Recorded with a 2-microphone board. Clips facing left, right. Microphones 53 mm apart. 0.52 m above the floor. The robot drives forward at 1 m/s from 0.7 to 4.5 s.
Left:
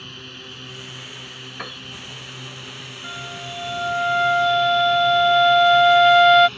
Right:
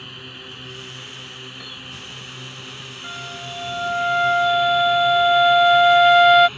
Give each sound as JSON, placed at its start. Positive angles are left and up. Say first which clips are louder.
{"t": 0.0, "sound": "a drone", "louder": "right 1 dB", "side_deg": -10}
{"t": 1.6, "sound": "a piano", "louder": "left 4 dB", "side_deg": 65}
{"t": 3.0, "sound": "a flute", "louder": "even", "side_deg": 0}